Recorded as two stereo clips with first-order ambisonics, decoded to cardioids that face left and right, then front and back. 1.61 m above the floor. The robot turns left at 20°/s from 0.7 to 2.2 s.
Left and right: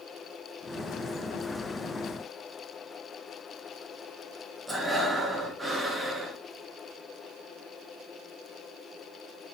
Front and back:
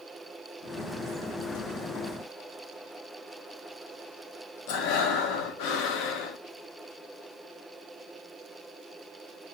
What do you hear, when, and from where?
4.7 s breathing: 5° right, 2.5 m